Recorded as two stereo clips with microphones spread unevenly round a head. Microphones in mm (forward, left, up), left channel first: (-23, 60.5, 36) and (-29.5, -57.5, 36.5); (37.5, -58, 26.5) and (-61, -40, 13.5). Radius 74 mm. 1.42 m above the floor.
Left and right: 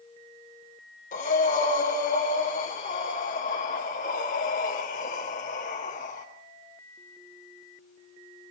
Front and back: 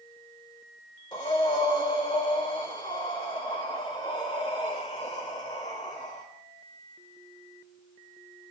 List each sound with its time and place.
1.1 s breathing: 50° left, 3.5 m